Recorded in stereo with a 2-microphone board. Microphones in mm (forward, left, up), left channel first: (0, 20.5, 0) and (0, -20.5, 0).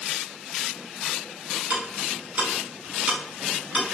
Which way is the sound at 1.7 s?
35° right (ahead or behind).